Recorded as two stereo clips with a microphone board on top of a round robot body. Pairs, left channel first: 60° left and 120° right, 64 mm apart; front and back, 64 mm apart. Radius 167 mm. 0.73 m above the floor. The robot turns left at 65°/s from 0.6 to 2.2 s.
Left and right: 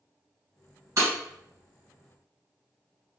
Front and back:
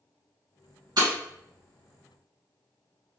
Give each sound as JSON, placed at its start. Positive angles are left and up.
{"t": 1.0, "sound": "breaking glass", "azimuth_deg": -165, "distance_m": 1.4}